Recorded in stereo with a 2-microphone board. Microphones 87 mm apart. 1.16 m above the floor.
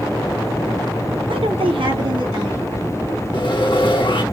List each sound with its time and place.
1.3 s a woman speaking: 80° right, 0.7 m; by 3.0 s 40° right (ahead or behind), 1.3 m
3.3 s sawing: 65° left (ahead or behind), 0.8 m